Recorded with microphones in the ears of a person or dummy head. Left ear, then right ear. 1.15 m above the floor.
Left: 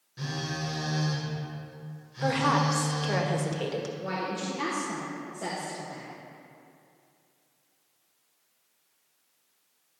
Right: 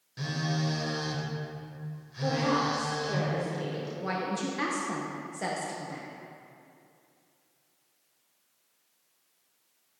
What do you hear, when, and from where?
0.2 s a phone buzzing: 20° right (ahead or behind), 1.5 m
2.2 s a woman speaking: 60° left (ahead or behind), 1.1 m
4.0 s a woman speaking: 45° right (ahead or behind), 0.9 m